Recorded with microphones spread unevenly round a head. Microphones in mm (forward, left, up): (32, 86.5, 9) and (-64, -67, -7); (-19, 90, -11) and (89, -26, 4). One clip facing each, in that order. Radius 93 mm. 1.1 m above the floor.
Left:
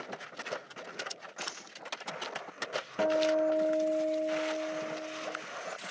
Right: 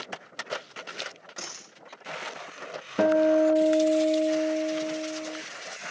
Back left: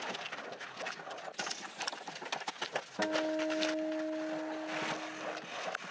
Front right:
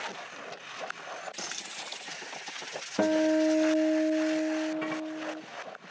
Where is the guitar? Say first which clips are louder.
Right 7 dB, front right 10 dB; 85° right, 0.8 m.